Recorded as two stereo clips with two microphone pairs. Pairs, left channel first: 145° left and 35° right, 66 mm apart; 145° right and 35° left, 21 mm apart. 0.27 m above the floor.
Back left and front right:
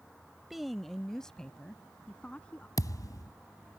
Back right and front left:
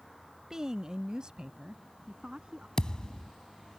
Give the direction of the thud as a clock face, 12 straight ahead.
7 o'clock.